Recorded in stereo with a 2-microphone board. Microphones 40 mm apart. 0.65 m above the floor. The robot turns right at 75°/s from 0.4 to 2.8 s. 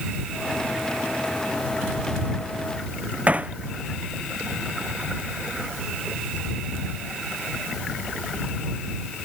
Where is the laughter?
I don't hear laughter.